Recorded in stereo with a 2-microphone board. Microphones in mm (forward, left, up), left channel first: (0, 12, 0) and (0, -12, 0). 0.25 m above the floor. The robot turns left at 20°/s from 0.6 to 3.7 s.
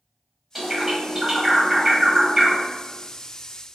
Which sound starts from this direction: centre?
A bird, at 0.6 s.